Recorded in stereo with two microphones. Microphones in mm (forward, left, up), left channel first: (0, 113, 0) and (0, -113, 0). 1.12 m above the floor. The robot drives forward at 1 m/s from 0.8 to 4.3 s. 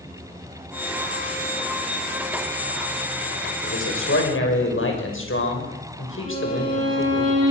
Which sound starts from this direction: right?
A violin, at 6.2 s.